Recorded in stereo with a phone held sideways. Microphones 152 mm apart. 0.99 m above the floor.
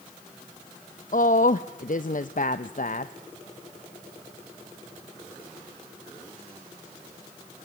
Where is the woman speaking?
60° left (ahead or behind), 0.7 m.